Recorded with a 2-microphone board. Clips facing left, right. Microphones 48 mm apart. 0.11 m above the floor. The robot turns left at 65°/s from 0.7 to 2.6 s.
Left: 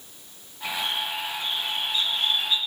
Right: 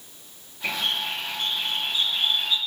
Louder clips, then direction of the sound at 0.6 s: Right 1 dB; 60° right.